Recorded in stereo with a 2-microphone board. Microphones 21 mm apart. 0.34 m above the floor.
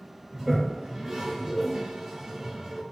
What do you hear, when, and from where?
0.3 s a toilet flushing: 20° right (ahead or behind), 0.7 m